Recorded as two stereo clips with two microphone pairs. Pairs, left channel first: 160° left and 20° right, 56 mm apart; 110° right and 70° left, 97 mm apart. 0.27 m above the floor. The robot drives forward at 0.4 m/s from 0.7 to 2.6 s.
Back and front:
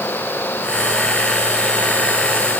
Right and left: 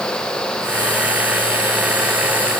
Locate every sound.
Only background noise.